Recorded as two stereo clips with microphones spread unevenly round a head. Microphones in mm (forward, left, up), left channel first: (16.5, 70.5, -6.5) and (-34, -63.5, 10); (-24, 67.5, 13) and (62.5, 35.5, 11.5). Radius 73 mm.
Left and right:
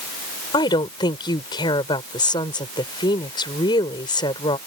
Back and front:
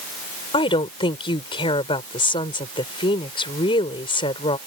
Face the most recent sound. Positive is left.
turn(degrees=130)